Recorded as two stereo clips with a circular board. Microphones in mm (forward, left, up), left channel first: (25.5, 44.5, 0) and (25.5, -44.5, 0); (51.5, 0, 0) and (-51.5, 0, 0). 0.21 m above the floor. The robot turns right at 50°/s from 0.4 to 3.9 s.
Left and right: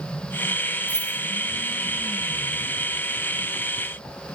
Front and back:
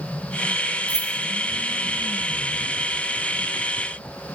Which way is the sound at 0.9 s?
5° left.